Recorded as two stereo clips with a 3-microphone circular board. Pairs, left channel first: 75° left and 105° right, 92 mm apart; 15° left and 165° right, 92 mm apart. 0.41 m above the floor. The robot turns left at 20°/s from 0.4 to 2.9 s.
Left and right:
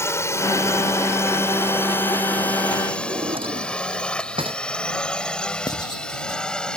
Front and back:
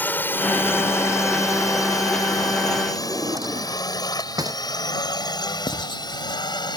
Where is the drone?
60° left; by 6.8 s 5° right.